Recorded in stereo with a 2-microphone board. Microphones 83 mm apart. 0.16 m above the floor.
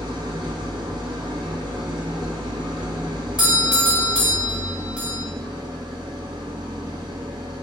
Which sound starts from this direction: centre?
A doorbell, at 3.4 s.